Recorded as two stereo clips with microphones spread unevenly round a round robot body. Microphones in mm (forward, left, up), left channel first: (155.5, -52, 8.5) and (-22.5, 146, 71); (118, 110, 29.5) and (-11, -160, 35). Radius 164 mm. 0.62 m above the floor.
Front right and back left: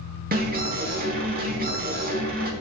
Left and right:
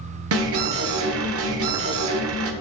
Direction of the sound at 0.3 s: 165° right.